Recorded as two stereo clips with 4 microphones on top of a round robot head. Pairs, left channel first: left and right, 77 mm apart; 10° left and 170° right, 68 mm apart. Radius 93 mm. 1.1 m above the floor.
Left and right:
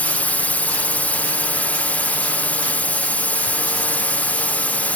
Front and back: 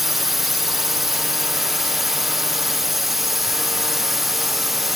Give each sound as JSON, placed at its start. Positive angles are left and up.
{"t": 0.0, "sound": "a drone", "azimuth_deg": 110}